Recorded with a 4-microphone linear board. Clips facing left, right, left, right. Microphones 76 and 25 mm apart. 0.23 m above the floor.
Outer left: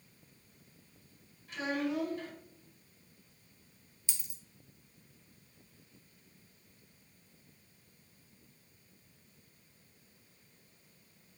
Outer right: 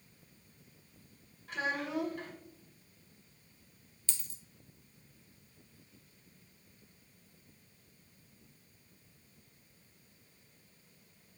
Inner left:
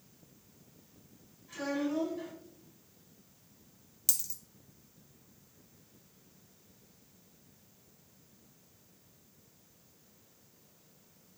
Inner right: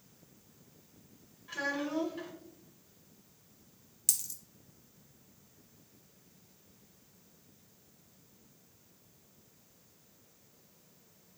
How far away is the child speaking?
About 2 m.